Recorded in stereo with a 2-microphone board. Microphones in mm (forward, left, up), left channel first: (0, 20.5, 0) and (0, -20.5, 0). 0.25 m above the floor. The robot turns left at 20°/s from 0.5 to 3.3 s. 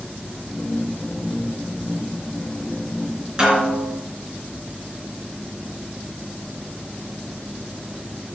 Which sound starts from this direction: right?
A snare drum, at 3.4 s.